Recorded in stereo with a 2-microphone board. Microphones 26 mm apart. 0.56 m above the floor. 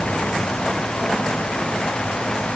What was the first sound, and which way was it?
Only background noise.